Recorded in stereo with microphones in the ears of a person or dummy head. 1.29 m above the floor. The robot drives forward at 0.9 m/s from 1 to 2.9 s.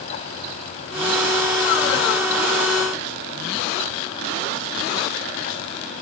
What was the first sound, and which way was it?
Only background noise.